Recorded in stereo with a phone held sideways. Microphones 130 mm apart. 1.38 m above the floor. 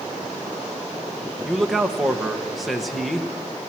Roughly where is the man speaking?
Centre.